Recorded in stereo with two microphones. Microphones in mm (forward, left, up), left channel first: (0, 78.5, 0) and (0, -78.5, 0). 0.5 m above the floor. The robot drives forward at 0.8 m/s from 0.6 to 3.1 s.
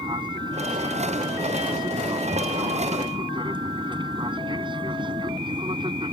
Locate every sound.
0.0 s an aircraft: 30° right (ahead or behind)